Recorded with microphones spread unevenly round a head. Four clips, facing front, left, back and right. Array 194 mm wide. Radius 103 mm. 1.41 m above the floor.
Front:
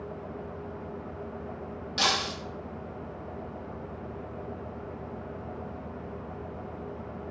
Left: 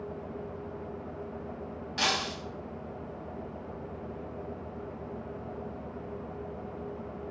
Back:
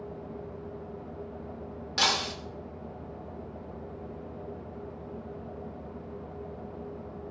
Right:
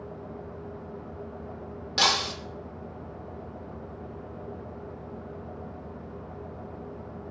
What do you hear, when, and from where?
2.0 s breaking glass: 105° right, 3 m